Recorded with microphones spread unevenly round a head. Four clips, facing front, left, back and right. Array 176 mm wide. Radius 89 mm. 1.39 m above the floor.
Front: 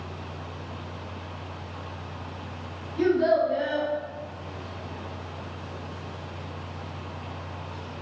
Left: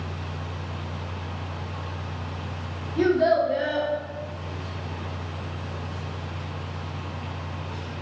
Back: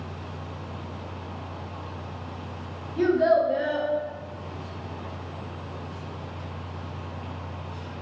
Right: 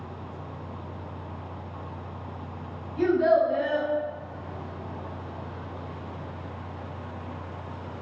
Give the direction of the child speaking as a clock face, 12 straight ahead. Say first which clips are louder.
Left 1 dB, back 1 dB; 8 o'clock.